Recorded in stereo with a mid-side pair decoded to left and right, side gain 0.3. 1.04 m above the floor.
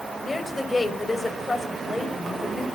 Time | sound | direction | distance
0.2 | a woman speaking | 30° left | 4 m